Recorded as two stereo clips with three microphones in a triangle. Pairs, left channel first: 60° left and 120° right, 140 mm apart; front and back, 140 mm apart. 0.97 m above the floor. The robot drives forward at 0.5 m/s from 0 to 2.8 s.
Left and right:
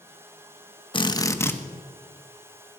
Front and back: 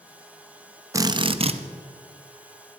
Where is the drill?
110° left, 0.5 m; by 1.6 s 135° left, 0.7 m.